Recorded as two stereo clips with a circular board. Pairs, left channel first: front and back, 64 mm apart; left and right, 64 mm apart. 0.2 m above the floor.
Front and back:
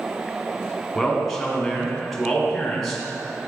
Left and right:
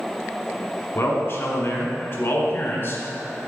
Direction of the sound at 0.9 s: 90° left.